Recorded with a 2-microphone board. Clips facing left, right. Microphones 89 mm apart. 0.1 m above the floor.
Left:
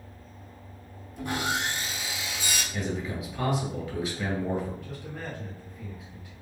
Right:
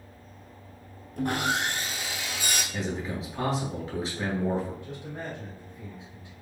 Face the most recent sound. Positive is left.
turn(degrees=-25)  # may be behind; listen again after turning